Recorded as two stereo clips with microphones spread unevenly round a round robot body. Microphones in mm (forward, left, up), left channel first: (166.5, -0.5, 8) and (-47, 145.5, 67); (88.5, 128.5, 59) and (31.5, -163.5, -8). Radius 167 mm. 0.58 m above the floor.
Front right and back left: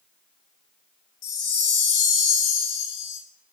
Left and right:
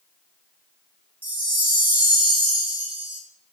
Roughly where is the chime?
Ahead.